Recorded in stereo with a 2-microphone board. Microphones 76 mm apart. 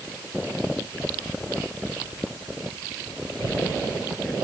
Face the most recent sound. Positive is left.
No sound to turn to.